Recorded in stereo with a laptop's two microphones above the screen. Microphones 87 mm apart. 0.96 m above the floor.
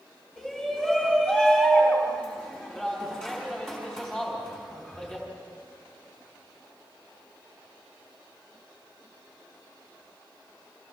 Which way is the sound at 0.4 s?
10° left (ahead or behind).